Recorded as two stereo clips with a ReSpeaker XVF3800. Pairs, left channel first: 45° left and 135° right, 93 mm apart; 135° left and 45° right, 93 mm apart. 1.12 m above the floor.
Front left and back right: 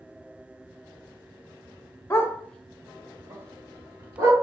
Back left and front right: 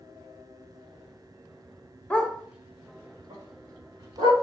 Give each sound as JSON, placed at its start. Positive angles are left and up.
{"t": 2.1, "sound": "a dog barking", "azimuth_deg": 70, "distance_m": 0.6}